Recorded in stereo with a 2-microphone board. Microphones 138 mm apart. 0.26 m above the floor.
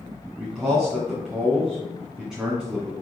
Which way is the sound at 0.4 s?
5° right (ahead or behind).